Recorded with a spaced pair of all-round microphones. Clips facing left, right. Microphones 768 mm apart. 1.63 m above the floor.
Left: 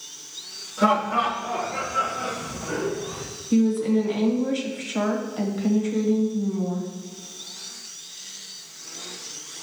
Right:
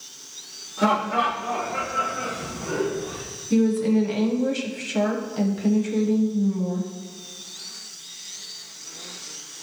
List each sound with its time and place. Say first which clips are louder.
0.8 s laughter: even; 10° left (ahead or behind), 3.5 m; by 3.2 s 15° right (ahead or behind), 6.5 m
3.5 s a woman speaking: even; 55° right (ahead or behind), 1.5 m